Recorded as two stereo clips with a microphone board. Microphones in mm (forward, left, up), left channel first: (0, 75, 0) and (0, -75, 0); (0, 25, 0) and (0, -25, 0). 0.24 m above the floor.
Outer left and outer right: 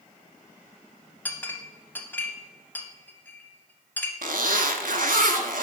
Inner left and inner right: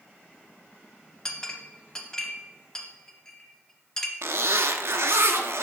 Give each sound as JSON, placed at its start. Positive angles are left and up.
{"t": 1.2, "sound": "a clink", "side_deg": 10, "distance_m": 0.6}
{"t": 4.2, "sound": "a zipper", "side_deg": -75, "distance_m": 0.5}